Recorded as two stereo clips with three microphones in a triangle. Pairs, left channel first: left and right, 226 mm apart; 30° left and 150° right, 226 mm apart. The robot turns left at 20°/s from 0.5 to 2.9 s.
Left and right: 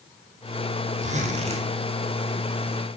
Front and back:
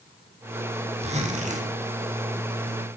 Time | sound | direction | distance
1.0 | a zipper | 115° right | 1.3 m